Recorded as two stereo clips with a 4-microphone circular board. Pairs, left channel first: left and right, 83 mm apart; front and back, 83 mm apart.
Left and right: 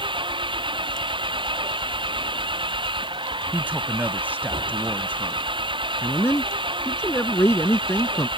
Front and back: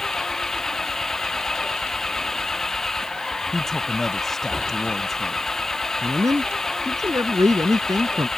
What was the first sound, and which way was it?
An engine running, 85° right.